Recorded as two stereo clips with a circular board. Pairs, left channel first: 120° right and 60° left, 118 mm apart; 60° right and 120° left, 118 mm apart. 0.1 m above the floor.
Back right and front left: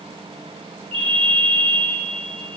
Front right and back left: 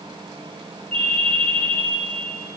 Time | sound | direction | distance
0.9 | a ringtone | 30° left | 2.5 m